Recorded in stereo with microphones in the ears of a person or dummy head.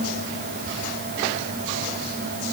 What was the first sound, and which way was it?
Only background noise.